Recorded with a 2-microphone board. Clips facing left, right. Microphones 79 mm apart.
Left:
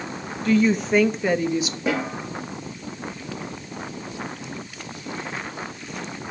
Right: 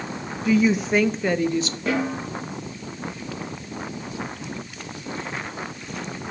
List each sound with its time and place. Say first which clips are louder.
0.5 s a woman speaking: even; 10° right (ahead or behind), 0.8 m; by 1.8 s 10° left (ahead or behind), 0.7 m
1.9 s a snare drum: right 1 dB; 10° left (ahead or behind), 6.5 m